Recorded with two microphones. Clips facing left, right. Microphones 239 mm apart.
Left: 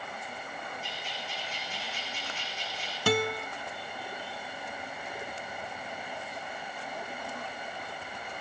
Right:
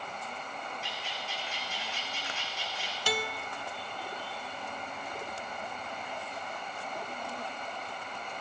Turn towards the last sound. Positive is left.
turn(degrees=60)  # may be behind; listen again after turning